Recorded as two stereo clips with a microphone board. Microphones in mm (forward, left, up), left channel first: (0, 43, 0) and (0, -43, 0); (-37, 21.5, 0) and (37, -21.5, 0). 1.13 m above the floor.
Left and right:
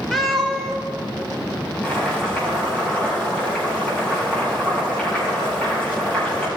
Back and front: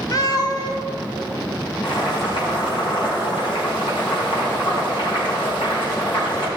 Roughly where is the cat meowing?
Behind.